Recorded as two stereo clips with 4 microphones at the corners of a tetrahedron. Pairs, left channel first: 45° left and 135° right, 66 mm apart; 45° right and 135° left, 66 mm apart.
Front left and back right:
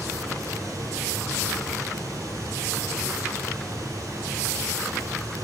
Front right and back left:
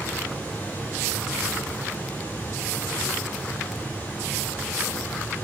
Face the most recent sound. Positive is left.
turn(degrees=-105)